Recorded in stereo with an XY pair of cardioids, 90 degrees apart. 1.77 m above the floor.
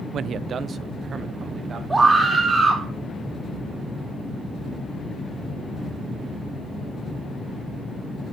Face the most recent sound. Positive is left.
turn(degrees=-25)